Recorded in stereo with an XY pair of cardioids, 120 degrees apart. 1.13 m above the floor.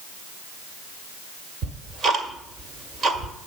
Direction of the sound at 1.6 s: 45° right.